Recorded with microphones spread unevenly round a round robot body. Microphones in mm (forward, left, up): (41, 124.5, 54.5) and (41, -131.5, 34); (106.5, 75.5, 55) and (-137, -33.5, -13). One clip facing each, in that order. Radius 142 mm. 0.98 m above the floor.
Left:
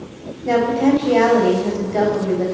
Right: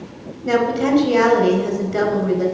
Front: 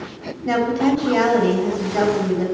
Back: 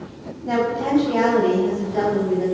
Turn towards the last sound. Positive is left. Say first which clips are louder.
# left 2 dB, front 4 dB
turn(degrees=-20)